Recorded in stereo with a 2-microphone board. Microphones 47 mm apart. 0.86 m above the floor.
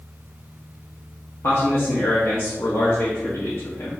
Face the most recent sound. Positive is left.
turn(degrees=60)  # may be behind; listen again after turning